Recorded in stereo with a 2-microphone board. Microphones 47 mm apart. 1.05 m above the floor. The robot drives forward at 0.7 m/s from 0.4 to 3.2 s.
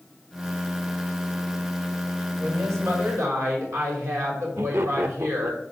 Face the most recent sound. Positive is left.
turn(degrees=-65)  # may be behind; listen again after turning